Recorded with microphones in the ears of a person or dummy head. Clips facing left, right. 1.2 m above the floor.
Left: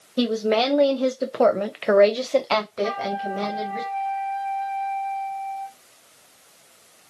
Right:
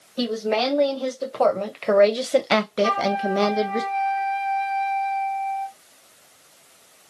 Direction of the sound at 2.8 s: 55° right (ahead or behind).